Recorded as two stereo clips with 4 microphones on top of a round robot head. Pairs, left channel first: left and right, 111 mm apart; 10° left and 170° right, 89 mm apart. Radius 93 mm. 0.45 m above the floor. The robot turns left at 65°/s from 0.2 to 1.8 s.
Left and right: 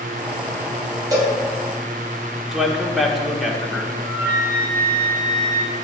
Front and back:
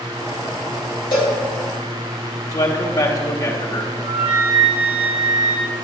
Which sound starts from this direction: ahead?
A man speaking, at 2.5 s.